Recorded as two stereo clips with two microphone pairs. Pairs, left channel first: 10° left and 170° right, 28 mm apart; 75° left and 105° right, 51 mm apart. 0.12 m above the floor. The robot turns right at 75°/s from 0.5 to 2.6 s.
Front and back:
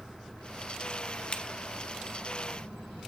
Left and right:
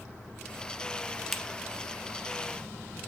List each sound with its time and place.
1.3 s a finger snap: 20° right, 1.1 m; by 1.4 s 15° right, 1.1 m